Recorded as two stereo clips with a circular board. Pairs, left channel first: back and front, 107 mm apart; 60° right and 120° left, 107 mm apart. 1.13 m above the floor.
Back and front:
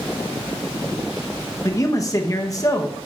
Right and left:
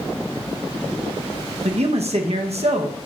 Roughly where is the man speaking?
Behind left.